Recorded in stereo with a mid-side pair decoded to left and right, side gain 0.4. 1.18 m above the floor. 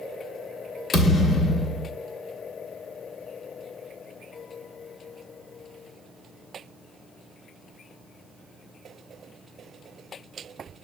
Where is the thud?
60° left, 1.6 m.